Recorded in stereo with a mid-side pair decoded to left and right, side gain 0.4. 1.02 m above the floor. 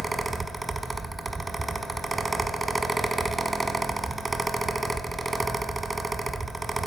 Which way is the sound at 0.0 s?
20° right.